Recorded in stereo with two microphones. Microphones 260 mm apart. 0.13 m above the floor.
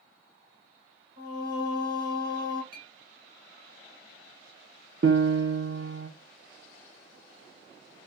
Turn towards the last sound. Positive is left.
turn(degrees=-55)  # may be behind; listen again after turning